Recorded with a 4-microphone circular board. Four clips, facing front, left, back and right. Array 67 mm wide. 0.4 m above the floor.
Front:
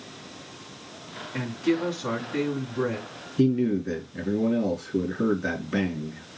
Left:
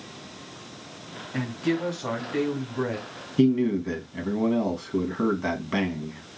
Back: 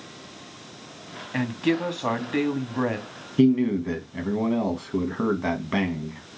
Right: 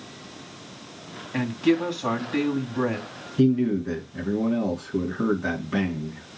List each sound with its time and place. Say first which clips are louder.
1.3 s a woman speaking: right 5 dB, back 1 dB; 165° right, 2.5 m
3.4 s a man speaking: even, back 3 dB; 155° left, 3.5 m